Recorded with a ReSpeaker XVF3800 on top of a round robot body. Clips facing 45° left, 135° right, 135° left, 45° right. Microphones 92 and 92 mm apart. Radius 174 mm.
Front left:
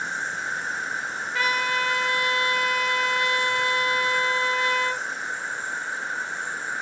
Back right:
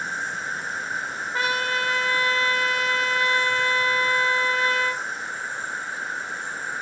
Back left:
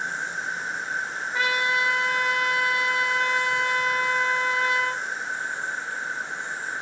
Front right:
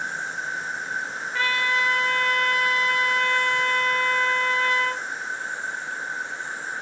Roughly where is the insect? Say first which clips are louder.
Even, even; behind left.